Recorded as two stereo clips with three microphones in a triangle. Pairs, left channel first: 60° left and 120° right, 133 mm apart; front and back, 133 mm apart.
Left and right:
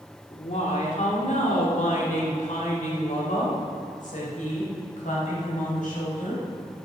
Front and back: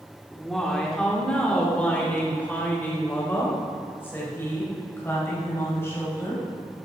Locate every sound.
0.3 s a woman speaking: 90° left, 2 m; by 6.4 s 70° left, 5.5 m